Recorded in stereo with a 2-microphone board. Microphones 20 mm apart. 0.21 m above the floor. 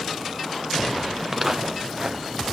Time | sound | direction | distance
1.2 | footsteps | 5° right (ahead or behind) | 1.8 m